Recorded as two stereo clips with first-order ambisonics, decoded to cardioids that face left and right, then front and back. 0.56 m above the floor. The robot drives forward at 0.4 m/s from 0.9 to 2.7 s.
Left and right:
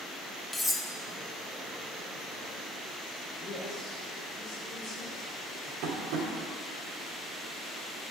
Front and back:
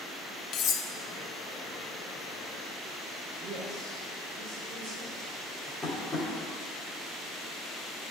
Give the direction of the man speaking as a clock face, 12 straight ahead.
7 o'clock.